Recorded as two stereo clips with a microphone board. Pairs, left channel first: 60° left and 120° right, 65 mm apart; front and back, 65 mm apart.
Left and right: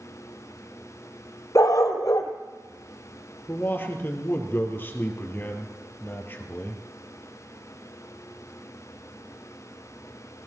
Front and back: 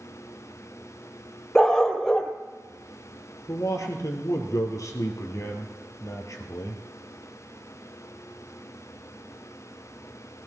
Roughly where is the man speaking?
Ahead.